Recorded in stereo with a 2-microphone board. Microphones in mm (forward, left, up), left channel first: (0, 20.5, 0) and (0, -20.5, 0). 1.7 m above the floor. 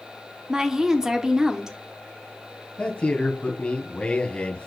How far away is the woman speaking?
About 0.9 m.